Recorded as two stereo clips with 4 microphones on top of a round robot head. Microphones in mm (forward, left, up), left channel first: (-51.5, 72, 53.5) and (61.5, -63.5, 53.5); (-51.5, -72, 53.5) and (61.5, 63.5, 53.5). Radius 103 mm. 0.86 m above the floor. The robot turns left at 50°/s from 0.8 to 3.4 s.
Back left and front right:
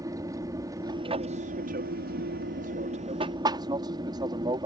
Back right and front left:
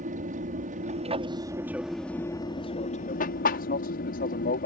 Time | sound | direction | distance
0.0 | an aircraft | 15° left | ?